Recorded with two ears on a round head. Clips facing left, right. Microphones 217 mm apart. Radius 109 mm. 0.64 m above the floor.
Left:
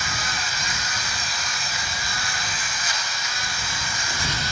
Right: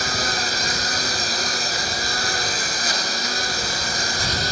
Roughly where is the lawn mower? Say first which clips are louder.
Right 7 dB; right.